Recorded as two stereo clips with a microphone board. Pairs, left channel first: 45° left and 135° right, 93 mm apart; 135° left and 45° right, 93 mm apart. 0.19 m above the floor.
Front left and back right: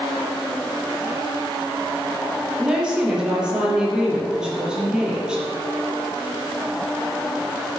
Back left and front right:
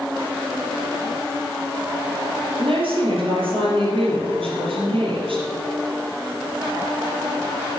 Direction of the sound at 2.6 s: 55° right.